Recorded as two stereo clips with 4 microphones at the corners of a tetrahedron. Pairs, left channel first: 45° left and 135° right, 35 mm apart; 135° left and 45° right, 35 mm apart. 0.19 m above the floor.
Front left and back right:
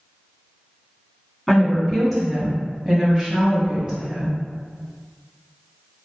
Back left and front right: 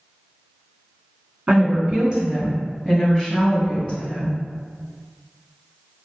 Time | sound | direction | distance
1.5 | a woman speaking | 35° right | 1.3 m